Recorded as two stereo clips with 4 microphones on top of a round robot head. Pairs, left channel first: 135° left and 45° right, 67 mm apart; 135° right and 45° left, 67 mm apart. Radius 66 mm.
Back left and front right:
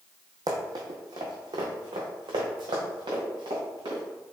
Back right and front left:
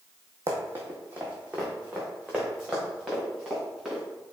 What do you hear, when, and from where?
0.5 s running footsteps: 10° right, 0.9 m; by 4.0 s 35° right, 2.5 m